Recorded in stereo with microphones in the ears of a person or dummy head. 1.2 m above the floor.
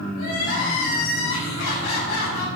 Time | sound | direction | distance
0.2 | crying | 75° left (ahead or behind) | 7 m